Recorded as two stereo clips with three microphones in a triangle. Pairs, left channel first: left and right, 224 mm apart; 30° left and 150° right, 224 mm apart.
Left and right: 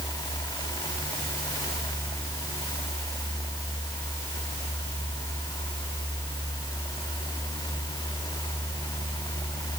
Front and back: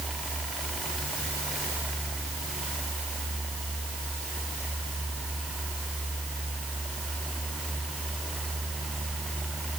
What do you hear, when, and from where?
Only background noise.